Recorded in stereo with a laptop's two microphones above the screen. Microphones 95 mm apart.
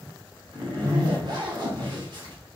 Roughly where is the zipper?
Right.